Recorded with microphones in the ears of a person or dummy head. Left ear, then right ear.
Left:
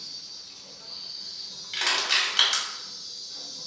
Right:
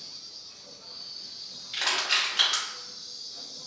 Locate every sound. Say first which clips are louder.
0.0 s an insect: left 3 dB; 10° left (ahead or behind), 1.7 m
1.7 s crushing: left 2 dB; 15° left (ahead or behind), 1.7 m